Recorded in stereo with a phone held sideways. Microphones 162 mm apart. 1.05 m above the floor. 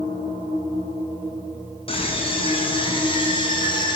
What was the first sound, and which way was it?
A scream, 35° left (ahead or behind).